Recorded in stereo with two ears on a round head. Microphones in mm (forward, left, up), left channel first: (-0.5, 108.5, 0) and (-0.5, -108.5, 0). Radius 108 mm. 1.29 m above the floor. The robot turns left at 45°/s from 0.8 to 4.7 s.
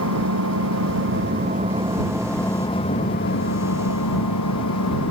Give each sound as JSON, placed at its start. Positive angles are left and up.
{"t": 0.0, "sound": "an engine running", "azimuth_deg": -115}